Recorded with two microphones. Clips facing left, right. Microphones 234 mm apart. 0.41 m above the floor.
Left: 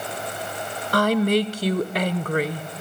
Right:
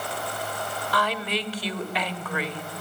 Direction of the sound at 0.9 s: 45° left (ahead or behind).